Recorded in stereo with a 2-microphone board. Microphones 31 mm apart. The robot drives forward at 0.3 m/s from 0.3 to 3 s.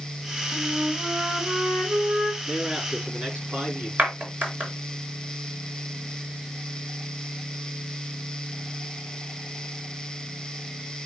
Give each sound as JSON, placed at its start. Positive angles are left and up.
{"t": 0.5, "sound": "a flute", "side_deg": -60, "distance_m": 2.5}
{"t": 2.5, "sound": "a man speaking", "side_deg": -30, "distance_m": 4.5}
{"t": 4.0, "sound": "a clap", "side_deg": -75, "distance_m": 4.0}